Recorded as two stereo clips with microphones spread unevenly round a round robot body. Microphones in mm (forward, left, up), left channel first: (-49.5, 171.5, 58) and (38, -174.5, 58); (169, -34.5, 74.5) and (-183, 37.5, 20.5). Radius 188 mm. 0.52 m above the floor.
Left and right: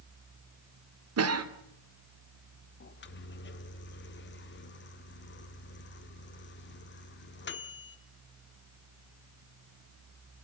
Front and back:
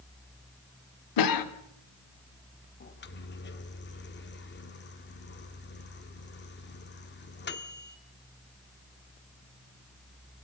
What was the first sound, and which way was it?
A cough, 35° right.